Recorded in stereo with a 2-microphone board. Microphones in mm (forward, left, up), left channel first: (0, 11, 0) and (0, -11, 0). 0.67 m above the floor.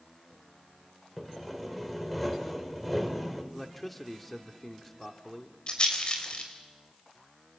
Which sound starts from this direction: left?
A rattle, at 5.7 s.